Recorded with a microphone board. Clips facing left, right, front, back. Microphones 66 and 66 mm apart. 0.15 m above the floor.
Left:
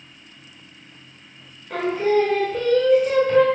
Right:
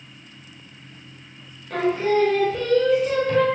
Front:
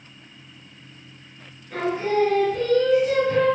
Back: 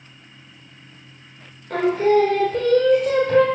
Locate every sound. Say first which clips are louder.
1.7 s singing: left 1 dB, back 6 dB; 175° left, 0.9 m